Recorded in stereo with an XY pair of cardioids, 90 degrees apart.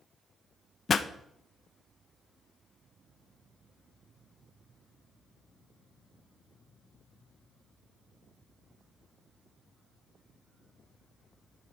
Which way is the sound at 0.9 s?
45° left.